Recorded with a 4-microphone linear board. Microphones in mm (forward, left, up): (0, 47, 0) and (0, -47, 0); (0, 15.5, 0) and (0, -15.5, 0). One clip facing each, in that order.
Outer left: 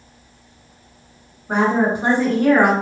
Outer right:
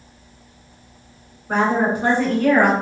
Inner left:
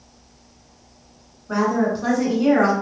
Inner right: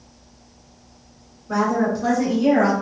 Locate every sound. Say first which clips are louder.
1.5 s a woman speaking: outer left 1 dB, even; 20° left (ahead or behind), 1.5 m; by 2.7 s 30° left (ahead or behind), 1.5 m